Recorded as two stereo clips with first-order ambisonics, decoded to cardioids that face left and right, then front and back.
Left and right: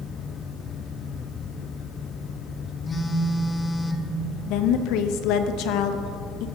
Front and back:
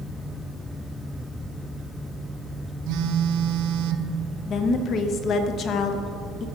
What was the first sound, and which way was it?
A phone buzzing, 165° left.